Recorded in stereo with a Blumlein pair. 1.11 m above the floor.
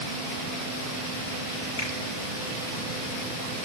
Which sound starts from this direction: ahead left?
A finger snap, at 1.8 s.